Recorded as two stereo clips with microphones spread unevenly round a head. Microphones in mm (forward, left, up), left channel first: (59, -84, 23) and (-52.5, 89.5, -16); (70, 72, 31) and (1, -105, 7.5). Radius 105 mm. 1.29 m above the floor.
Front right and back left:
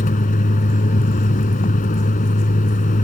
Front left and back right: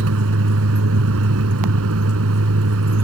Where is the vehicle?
110° right.